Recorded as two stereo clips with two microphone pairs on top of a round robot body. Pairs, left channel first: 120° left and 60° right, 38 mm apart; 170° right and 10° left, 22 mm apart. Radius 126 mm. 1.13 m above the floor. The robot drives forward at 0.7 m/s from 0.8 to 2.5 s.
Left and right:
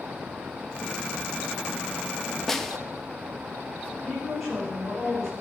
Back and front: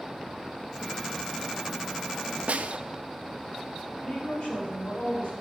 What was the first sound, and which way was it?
A snare drum, 35° left.